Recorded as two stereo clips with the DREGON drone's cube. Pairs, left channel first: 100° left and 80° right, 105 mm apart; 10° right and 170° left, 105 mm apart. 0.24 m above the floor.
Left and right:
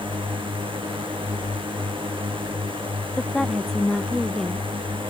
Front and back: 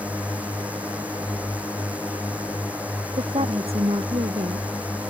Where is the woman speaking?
170° right.